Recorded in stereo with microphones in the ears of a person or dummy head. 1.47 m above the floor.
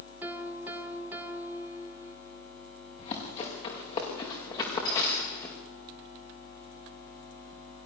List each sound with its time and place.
0.2 s a piano: 15° right (ahead or behind), 2 m
3.0 s running footsteps: 35° left (ahead or behind), 7 m; by 5.5 s 15° left (ahead or behind), 6 m